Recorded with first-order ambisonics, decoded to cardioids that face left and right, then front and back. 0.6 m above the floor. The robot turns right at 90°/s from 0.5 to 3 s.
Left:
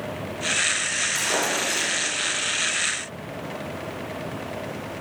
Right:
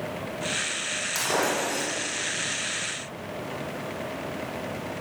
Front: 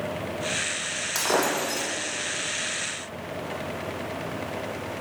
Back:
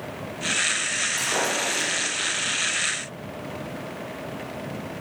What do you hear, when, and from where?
1.1 s breaking glass: 15° right, 8 m; by 1.9 s 50° left, 8 m